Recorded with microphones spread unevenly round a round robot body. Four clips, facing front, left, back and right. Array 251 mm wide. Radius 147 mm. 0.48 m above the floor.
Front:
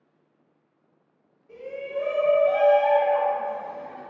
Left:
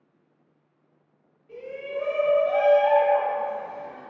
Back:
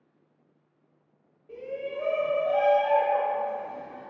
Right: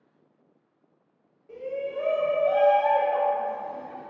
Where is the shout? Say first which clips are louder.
Right 2 dB, front 2 dB; 140° right, 1.6 m; by 4.0 s 120° right, 3.5 m.